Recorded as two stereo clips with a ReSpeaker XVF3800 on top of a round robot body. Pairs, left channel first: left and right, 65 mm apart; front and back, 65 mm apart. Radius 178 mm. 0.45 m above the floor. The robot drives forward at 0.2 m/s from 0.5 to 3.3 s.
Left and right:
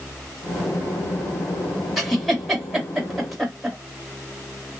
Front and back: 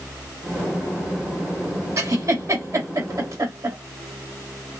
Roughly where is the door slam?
No door slam in this recording.